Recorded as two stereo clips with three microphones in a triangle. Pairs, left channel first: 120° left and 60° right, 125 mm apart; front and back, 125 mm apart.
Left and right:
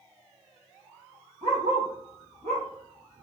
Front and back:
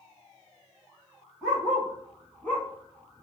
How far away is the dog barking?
About 1.6 m.